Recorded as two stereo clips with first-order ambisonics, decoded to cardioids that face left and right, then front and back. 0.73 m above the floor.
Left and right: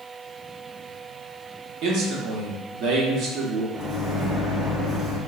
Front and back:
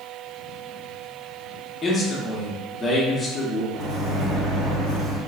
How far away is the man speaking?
About 0.9 m.